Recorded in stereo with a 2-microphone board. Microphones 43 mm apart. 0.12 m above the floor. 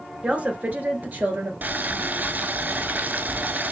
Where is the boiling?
45° right (ahead or behind), 0.5 m.